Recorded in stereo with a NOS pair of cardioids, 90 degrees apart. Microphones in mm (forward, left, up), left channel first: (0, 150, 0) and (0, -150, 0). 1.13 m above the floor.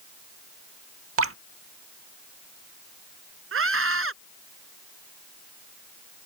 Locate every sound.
1.2 s dripping: 45° right
3.5 s a scream: 45° right